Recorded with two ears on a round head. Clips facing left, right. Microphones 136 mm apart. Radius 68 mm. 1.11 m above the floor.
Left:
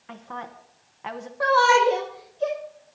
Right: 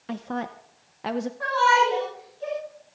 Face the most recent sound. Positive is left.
turn(degrees=80)